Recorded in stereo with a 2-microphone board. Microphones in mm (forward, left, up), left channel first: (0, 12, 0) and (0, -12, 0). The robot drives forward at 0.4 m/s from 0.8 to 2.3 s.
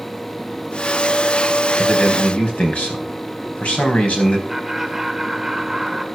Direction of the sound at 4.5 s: Centre (ahead or behind).